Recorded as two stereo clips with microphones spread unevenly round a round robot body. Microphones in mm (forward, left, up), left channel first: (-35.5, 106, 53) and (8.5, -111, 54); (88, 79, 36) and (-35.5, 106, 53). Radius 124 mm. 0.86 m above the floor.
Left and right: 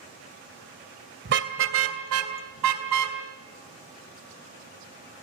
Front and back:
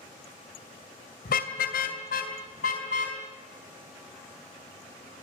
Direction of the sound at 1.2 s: 30° right.